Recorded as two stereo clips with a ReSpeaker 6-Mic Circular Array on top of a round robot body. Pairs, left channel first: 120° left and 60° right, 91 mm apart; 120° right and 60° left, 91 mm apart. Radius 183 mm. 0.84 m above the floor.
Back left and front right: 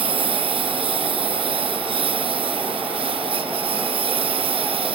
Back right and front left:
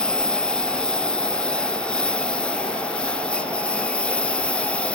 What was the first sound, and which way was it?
A lawn mower, 40° right.